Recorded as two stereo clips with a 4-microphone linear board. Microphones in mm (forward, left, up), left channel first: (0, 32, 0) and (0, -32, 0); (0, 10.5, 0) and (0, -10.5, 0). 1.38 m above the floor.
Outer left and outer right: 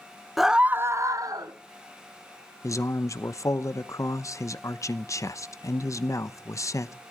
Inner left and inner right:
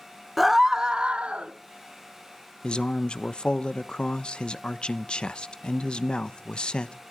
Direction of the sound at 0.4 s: Centre (ahead or behind).